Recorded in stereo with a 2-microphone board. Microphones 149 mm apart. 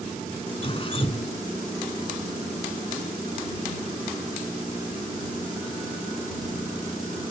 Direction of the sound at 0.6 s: 40° left (ahead or behind).